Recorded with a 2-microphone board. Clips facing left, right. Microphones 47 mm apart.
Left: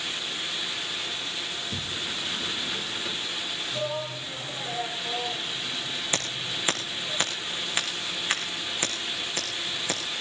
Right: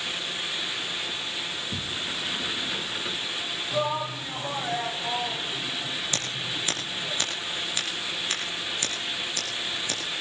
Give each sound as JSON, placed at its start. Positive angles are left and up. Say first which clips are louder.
{"t": 1.5, "sound": "a sliding door", "louder": "right 1 dB", "side_deg": -10, "distance_m": 0.9}
{"t": 3.7, "sound": "a shout", "louder": "right 5 dB", "side_deg": -55, "distance_m": 2.5}
{"t": 6.1, "sound": "scissors", "louder": "even", "side_deg": 25, "distance_m": 6.0}